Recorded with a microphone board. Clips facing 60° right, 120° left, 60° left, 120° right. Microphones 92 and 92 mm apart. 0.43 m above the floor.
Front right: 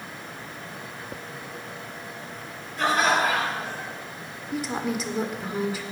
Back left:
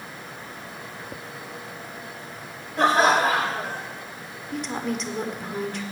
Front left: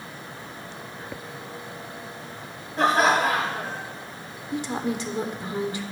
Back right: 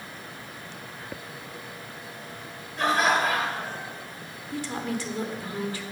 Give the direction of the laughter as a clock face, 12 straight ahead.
9 o'clock.